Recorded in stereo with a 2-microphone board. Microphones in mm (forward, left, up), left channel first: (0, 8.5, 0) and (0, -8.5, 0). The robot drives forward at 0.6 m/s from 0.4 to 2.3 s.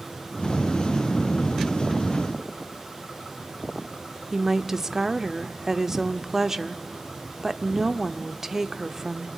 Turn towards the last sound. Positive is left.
turn(degrees=-25)  # may be behind; listen again after turning